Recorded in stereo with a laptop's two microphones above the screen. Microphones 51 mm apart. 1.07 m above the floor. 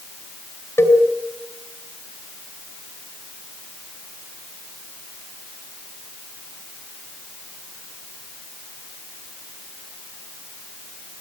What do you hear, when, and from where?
0.8 s a cowbell: 60° left (ahead or behind), 4.5 m